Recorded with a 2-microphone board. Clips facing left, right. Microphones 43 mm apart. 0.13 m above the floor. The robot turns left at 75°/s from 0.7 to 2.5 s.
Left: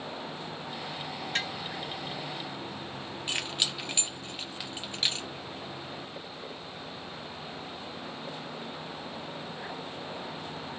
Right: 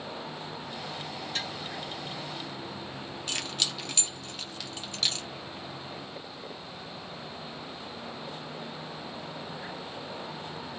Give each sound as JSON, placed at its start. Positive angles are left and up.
{"t": 1.4, "sound": "tapping", "side_deg": 45, "distance_m": 1.6}
{"t": 3.3, "sound": "keys jangling", "side_deg": 20, "distance_m": 0.7}